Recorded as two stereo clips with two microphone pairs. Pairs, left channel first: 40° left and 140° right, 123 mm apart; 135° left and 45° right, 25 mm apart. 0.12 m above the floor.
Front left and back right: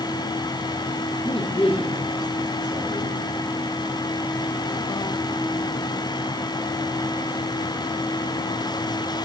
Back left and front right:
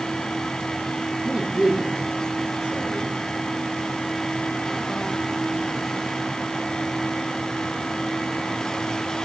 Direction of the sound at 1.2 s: 5° left.